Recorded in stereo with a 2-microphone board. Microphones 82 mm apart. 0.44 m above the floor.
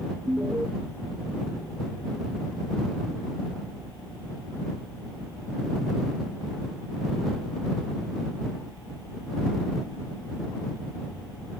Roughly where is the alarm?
Right.